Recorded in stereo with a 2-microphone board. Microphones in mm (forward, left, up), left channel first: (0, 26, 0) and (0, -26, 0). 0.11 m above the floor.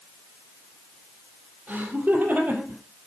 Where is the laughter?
25° right (ahead or behind), 3.5 m; by 2.8 s 35° right (ahead or behind), 3.5 m.